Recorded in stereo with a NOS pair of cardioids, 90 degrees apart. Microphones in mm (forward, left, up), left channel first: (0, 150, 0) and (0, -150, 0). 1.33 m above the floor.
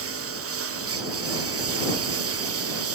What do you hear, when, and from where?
0.0 s a lawn mower: 45° right; by 3.0 s 50° right